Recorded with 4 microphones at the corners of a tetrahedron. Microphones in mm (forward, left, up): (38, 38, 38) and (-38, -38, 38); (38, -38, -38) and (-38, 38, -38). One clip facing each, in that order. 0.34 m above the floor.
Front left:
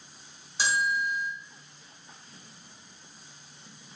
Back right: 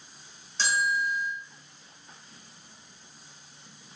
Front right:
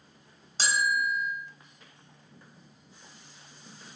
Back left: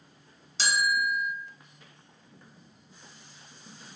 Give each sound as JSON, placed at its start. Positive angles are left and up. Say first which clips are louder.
{"t": 0.6, "sound": "a bell", "louder": "even, even", "azimuth_deg": -30, "distance_m": 1.0}